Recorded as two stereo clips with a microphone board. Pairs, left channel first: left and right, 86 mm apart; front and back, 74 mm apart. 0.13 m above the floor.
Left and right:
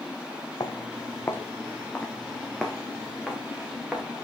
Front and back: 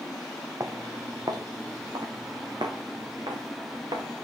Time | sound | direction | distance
0.6 | footsteps | 135° left | 1.2 m